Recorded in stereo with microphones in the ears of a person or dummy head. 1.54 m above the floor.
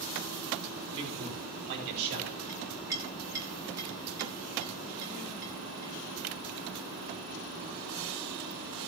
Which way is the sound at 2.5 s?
15° right (ahead or behind).